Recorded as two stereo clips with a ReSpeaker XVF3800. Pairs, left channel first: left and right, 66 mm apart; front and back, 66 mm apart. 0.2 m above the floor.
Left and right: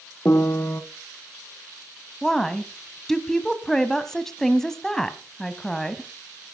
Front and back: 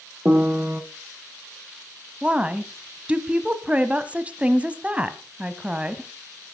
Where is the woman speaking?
160° left, 1.0 m.